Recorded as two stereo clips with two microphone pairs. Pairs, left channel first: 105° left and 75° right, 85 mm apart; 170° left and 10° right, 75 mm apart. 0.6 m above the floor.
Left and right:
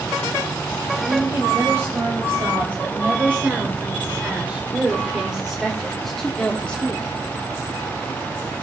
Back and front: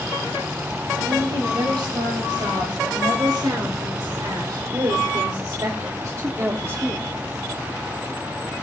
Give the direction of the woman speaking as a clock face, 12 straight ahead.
1 o'clock.